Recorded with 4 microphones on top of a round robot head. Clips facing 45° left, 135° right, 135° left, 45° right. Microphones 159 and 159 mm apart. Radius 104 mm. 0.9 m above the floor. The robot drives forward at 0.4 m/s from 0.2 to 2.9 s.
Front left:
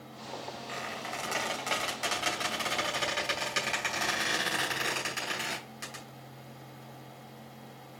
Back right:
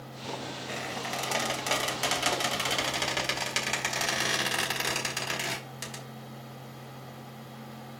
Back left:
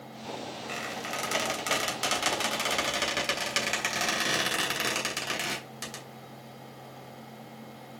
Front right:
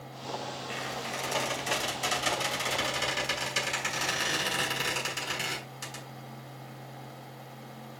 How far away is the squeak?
About 3 m.